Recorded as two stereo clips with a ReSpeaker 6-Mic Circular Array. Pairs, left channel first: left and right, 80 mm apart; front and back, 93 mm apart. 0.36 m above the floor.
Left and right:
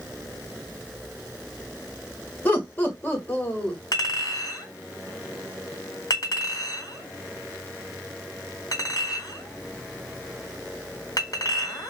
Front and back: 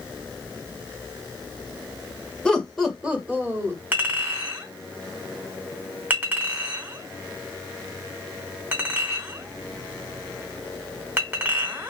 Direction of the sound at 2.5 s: 65° left.